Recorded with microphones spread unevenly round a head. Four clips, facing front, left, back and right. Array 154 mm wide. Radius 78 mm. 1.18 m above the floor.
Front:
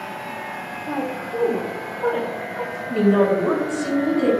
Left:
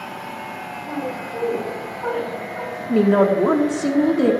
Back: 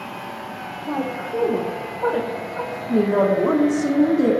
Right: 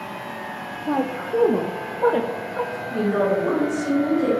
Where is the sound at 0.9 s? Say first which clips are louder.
Right 5 dB, back 1 dB; 95° right, 0.8 m.